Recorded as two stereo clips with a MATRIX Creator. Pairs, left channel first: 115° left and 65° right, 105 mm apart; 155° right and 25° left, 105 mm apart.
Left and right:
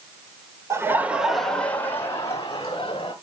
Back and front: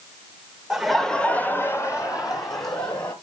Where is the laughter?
55° right, 1.0 m; by 3.1 s 155° left, 1.9 m.